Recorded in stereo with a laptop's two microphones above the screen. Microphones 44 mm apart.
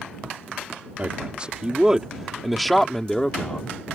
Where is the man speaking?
30° right (ahead or behind); by 3.7 s 20° left (ahead or behind).